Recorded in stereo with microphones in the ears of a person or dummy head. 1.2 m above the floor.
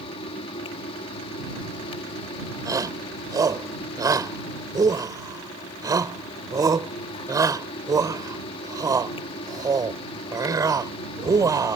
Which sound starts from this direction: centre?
A shout, at 2.6 s.